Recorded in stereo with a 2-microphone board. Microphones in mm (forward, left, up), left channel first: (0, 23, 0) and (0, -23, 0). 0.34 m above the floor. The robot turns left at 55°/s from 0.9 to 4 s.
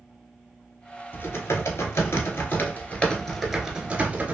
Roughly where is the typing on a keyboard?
Behind left.